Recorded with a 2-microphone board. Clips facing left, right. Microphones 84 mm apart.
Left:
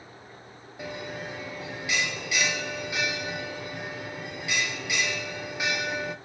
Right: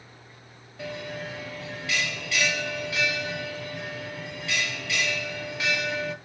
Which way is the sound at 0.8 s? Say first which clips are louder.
Right 1 dB; 15° left (ahead or behind).